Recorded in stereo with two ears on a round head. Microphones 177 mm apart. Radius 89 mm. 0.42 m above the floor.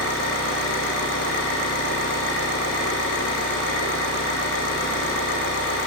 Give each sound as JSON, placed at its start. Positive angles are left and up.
{"t": 0.0, "sound": "an engine running", "side_deg": 65, "distance_m": 6.5}